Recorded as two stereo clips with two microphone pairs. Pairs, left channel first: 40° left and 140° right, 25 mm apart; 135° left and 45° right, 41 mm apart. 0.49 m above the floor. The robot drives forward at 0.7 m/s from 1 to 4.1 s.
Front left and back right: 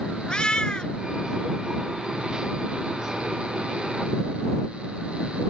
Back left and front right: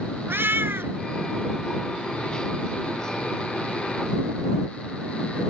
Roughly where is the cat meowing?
Ahead.